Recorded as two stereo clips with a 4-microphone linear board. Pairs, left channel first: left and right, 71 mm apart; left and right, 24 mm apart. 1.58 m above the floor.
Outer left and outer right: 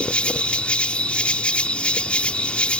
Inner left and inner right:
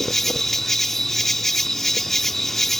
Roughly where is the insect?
Centre.